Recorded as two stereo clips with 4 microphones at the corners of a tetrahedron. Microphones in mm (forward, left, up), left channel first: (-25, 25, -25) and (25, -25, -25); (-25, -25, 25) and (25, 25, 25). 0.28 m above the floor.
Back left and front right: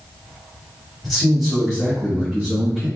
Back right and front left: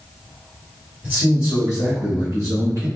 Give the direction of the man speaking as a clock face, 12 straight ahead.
11 o'clock.